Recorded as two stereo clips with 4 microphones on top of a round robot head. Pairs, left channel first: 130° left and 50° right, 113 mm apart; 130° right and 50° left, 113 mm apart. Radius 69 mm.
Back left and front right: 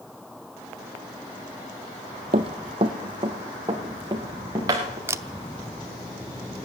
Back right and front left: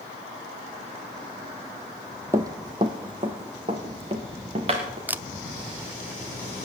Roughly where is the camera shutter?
Ahead.